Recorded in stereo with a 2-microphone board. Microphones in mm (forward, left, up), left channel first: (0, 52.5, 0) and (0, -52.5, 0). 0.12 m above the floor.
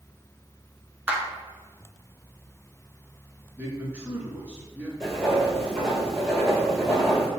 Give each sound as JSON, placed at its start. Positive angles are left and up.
{"t": 1.1, "sound": "a clap", "side_deg": -15, "distance_m": 0.9}
{"t": 3.6, "sound": "a man speaking", "side_deg": -15, "distance_m": 1.1}
{"t": 5.0, "sound": "writing", "side_deg": 5, "distance_m": 1.6}